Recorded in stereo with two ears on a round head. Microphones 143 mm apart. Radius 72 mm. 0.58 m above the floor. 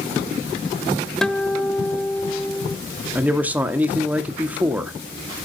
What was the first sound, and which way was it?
A guitar, 5° left (ahead or behind).